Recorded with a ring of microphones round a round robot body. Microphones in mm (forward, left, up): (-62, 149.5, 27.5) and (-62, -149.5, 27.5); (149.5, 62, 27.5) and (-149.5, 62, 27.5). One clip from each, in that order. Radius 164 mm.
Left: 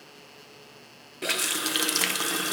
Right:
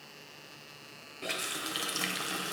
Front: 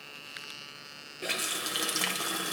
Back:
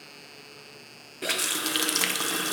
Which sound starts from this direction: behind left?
A running tap, at 1.2 s.